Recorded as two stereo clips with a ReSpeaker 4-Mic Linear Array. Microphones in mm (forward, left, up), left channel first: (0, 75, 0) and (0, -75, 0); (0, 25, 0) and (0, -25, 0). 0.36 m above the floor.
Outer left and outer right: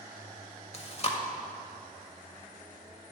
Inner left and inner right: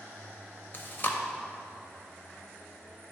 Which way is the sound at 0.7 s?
45° left (ahead or behind).